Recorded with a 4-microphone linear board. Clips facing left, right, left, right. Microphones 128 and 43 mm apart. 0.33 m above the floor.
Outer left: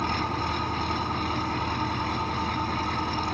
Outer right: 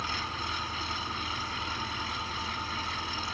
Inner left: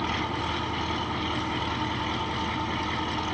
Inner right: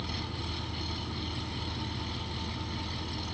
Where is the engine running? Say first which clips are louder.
Outer left 9 dB, inner left 10 dB; 55° left (ahead or behind), 0.7 m.